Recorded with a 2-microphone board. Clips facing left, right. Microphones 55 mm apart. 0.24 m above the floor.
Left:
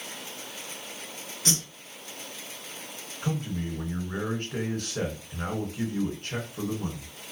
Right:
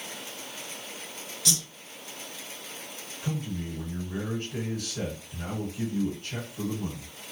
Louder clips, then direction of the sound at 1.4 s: Left 2 dB; 40° left (ahead or behind).